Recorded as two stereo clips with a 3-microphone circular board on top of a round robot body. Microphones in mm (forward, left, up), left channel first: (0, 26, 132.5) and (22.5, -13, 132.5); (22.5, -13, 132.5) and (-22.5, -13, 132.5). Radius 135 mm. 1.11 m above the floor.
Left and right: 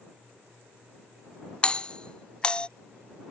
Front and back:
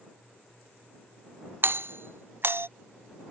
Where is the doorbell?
Straight behind.